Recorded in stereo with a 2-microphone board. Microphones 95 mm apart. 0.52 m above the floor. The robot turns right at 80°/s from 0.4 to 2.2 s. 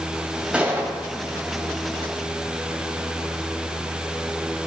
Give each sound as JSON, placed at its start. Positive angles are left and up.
{"t": 0.5, "sound": "a gunshot", "azimuth_deg": -165, "distance_m": 1.9}